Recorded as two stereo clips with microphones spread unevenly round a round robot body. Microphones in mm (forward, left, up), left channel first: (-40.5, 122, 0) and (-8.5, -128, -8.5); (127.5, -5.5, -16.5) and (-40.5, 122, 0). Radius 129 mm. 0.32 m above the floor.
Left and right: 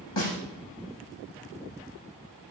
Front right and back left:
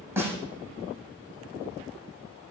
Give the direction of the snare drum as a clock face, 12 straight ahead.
10 o'clock.